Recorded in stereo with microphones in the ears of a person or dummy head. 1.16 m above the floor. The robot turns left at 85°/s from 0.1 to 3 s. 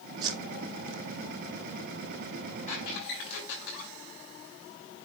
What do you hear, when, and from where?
0.2 s tape being pulled: 25° right (ahead or behind), 2 m; by 1.0 s 90° right, 2 m
2.7 s a squeak: 45° left (ahead or behind), 6 m; by 3.9 s 70° left (ahead or behind), 6 m